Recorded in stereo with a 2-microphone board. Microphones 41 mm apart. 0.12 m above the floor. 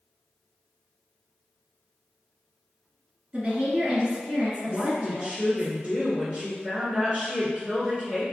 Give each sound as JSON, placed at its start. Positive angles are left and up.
{"t": 3.3, "sound": "a woman speaking", "side_deg": -25, "distance_m": 1.9}
{"t": 4.7, "sound": "a woman speaking", "side_deg": -25, "distance_m": 1.6}